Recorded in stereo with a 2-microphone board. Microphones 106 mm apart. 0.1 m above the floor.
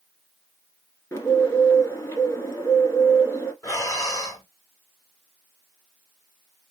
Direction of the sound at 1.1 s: 25° left (ahead or behind).